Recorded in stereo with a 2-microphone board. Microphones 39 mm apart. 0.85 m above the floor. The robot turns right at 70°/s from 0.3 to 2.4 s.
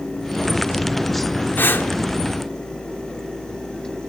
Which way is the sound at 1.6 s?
60° left (ahead or behind).